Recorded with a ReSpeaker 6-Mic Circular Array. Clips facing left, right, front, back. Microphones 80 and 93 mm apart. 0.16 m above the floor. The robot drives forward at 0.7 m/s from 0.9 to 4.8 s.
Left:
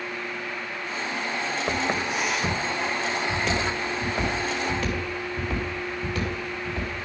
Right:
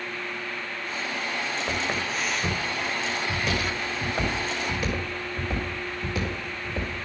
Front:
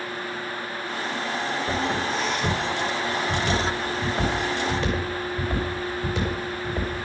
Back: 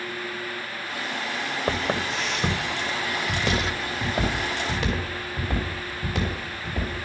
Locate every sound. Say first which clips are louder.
1.7 s footsteps: left 4 dB, back 1 dB; 160° left, 1.8 m; by 7.0 s 160° right, 5.5 m